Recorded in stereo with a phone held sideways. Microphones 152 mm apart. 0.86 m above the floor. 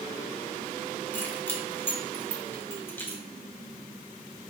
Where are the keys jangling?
15° left (ahead or behind), 2 m.